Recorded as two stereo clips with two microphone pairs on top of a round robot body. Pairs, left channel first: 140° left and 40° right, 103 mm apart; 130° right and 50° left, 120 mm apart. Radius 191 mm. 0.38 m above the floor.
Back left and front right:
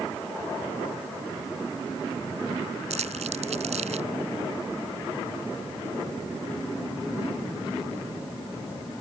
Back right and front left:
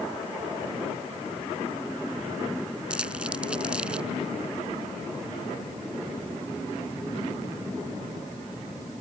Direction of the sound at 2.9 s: 35° right.